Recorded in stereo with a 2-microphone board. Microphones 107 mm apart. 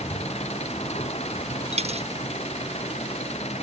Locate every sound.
0.0 s an engine running: 80° left
1.7 s a dropped coin: 75° right (ahead or behind)